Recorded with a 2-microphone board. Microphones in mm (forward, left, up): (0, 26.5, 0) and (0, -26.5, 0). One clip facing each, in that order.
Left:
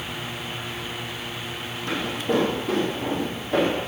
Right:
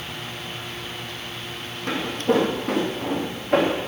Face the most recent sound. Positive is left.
turn(degrees=-75)  # may be behind; listen again after turning